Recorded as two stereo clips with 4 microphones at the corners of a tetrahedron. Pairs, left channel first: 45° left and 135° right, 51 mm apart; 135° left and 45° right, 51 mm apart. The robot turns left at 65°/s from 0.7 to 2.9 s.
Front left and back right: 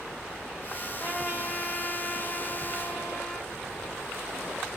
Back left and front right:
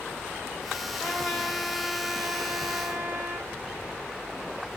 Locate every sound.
0.9 s a trumpet: 100° left, 1.2 m; by 3.5 s 30° right, 1.2 m